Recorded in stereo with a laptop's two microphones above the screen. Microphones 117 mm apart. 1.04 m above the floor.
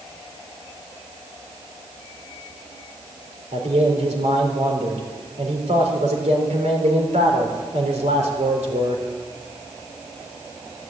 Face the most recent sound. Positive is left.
turn(degrees=-75)  # may be behind; listen again after turning